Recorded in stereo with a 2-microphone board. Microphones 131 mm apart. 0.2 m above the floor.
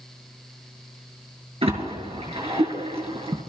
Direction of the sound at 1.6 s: 45° right (ahead or behind).